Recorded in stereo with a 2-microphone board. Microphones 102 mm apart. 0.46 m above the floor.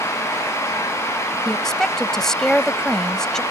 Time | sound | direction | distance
1.4 | a woman speaking | 5° left (ahead or behind) | ?